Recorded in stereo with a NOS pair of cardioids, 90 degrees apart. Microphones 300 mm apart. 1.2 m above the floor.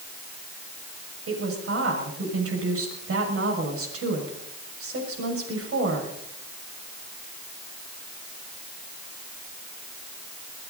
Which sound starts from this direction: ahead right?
A woman speaking, at 1.3 s.